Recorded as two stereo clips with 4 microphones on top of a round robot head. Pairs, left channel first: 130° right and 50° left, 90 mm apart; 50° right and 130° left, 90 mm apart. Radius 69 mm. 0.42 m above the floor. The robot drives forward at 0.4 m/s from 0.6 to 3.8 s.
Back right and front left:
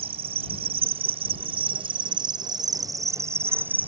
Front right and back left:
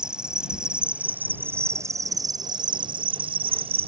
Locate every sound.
0.0 s an insect: 50° left; by 3.9 s 120° left